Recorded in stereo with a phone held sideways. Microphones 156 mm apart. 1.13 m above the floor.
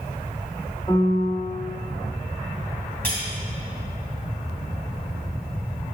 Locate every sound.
0.9 s a piano: 25° left (ahead or behind), 1.6 m
3.0 s cutlery clinking: 10° left (ahead or behind), 2.5 m